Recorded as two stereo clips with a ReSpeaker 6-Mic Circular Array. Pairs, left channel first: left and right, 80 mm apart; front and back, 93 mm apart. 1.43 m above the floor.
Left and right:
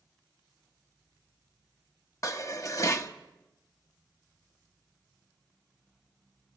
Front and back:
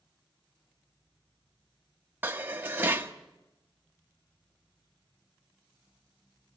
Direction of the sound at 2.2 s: 120° left.